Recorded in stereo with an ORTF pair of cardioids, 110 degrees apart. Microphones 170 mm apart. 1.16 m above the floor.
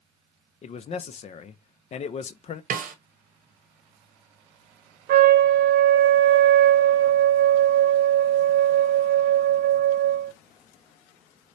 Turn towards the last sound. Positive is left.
turn(degrees=-65)